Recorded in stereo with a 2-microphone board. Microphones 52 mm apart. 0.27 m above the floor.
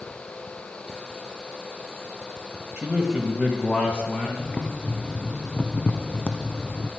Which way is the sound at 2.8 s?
25° right (ahead or behind).